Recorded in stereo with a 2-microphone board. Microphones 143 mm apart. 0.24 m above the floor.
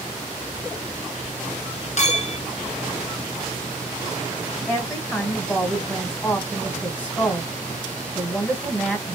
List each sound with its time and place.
2.0 s a clink: 50° left (ahead or behind), 1.0 m
4.7 s a woman speaking: 10° left (ahead or behind), 1.5 m